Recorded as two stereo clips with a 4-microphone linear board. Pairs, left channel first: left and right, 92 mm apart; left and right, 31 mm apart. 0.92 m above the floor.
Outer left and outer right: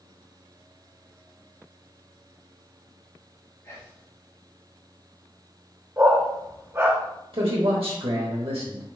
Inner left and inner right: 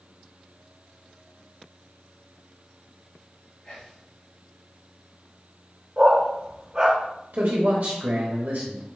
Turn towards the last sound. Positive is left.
turn(degrees=-75)  # may be behind; listen again after turning